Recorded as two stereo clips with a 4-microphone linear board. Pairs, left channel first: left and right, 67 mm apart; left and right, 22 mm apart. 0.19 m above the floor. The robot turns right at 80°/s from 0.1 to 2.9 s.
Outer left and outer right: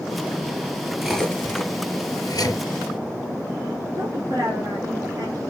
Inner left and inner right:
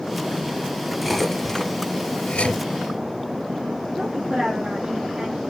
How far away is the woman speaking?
About 3 m.